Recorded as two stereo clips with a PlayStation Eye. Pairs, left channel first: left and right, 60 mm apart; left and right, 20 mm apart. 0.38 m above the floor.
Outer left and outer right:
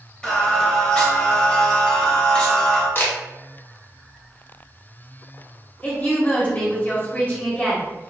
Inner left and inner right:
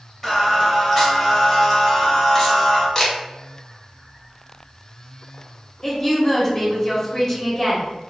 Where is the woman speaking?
25° left (ahead or behind), 1.3 m.